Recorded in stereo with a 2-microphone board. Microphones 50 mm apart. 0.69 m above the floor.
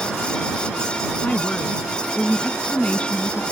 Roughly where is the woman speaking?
Left.